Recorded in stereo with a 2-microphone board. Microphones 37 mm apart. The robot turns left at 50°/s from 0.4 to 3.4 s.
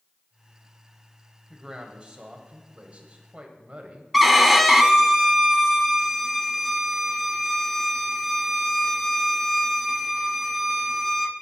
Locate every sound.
1.5 s a man speaking: 35° right, 1.3 m; by 4.0 s 130° right, 1.3 m
4.1 s a violin: centre (ahead or behind), 0.6 m